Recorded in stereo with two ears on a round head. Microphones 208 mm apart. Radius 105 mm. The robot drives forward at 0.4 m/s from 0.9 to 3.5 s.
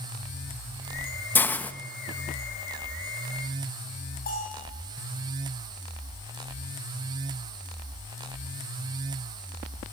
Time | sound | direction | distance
1.4 | a hiss | 10° left (ahead or behind) | 0.9 m
4.3 | a bell | 40° left (ahead or behind) | 10 m